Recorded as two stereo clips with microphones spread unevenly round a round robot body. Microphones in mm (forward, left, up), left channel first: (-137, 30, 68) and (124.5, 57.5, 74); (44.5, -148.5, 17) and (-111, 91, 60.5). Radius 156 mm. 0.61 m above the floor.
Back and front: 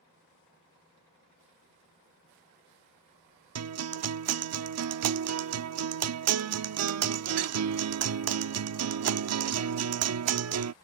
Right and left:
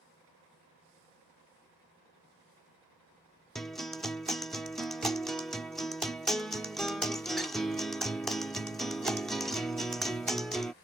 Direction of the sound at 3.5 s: 30° left.